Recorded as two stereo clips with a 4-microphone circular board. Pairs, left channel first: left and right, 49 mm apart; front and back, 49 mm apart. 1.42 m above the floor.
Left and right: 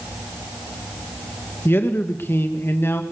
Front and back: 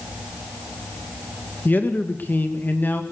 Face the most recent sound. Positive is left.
turn(degrees=50)